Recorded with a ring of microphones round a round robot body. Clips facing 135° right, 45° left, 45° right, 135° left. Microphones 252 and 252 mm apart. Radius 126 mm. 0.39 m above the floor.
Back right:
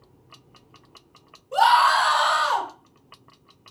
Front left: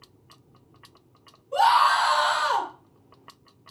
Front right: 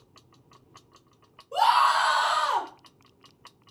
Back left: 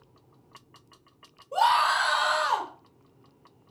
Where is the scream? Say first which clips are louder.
Back right 2 dB, front right 1 dB; 115° right, 4 m.